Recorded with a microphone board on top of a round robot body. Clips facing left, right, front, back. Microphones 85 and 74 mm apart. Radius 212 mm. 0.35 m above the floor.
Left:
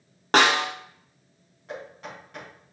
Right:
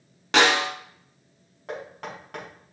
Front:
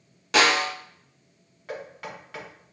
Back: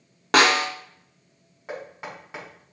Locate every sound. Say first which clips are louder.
0.3 s a snare drum: even, back 2 dB; 140° left, 1.4 m
1.7 s knocking: right 3 dB, back 1 dB; 115° right, 4.5 m